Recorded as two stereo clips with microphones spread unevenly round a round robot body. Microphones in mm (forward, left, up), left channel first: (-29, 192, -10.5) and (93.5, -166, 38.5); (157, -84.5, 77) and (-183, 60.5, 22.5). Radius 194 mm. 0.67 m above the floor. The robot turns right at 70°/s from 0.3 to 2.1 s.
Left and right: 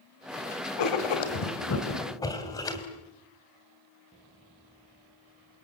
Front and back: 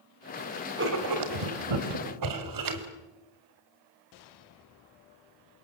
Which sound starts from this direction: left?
Writing, at 0.8 s.